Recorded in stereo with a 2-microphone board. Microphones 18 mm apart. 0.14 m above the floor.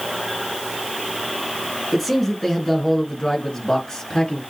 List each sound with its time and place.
1.9 s a man speaking: 5° left (ahead or behind), 1.9 m; by 4.4 s 40° left (ahead or behind), 2 m